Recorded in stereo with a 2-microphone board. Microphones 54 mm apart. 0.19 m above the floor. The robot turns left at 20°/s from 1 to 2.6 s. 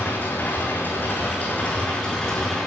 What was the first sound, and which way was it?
An engine running, 40° left.